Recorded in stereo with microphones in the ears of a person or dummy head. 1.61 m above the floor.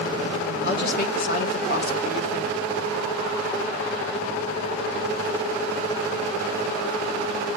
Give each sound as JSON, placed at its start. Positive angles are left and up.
{"t": 0.6, "sound": "a woman speaking", "side_deg": 55, "distance_m": 1.7}